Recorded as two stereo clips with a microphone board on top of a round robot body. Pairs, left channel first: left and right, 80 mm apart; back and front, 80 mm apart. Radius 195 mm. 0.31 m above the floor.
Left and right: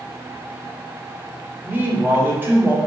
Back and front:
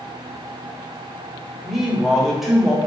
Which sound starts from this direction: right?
A man speaking, at 1.6 s.